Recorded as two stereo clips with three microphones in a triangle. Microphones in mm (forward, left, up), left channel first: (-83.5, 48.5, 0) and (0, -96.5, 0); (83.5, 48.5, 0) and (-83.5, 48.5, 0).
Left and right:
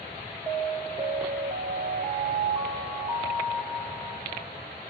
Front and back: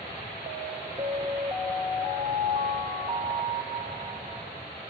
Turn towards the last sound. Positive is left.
turn(degrees=-130)